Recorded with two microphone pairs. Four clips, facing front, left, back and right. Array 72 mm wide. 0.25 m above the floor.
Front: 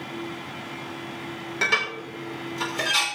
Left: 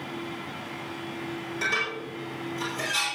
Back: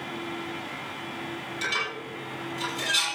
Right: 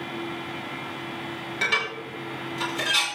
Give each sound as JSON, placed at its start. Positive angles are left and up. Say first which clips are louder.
{"t": 1.6, "sound": "dishes clattering", "louder": "right 2 dB, front 6 dB", "azimuth_deg": -25, "distance_m": 4.5}